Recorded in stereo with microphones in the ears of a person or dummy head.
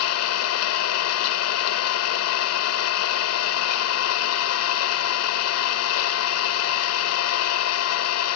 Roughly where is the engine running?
Left.